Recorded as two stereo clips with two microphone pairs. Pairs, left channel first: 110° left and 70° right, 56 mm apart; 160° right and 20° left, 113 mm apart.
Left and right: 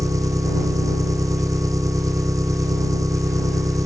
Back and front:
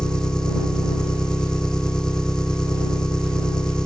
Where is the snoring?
No snoring in this recording.